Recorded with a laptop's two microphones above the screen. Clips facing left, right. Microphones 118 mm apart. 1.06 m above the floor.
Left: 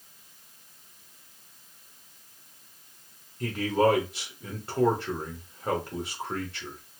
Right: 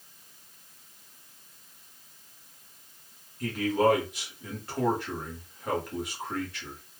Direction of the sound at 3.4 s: 30° left (ahead or behind).